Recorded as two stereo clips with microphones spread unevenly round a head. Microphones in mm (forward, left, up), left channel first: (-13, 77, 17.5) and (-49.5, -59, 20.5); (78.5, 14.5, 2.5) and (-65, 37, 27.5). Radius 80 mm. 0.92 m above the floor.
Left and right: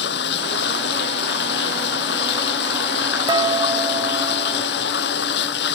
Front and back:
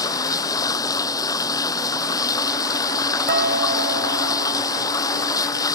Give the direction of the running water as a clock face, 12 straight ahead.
10 o'clock.